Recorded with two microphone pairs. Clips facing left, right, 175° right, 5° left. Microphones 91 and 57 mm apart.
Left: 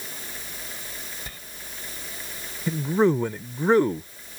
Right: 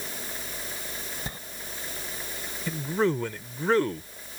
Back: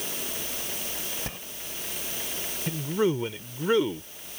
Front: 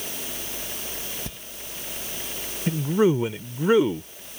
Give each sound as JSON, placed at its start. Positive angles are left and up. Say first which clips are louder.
{"t": 1.3, "sound": "a sliding door", "louder": "right 4 dB, back 2 dB", "azimuth_deg": -145}
{"t": 2.7, "sound": "a man speaking", "louder": "left 5 dB, front 5 dB", "azimuth_deg": 55}